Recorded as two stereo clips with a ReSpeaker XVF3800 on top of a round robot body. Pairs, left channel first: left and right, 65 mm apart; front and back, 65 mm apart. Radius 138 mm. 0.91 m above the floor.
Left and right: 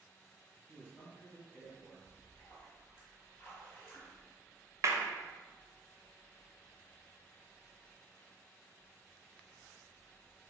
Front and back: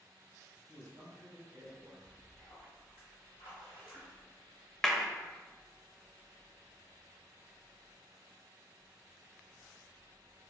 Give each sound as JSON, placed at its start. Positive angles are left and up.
{"t": 0.7, "sound": "a man speaking", "azimuth_deg": 140, "distance_m": 1.6}
{"t": 2.1, "sound": "a splash", "azimuth_deg": 35, "distance_m": 1.7}
{"t": 4.8, "sound": "a clap", "azimuth_deg": -80, "distance_m": 0.7}